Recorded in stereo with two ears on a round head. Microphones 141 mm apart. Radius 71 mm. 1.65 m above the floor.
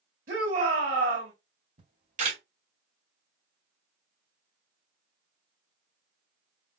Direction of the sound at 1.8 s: 50° right (ahead or behind).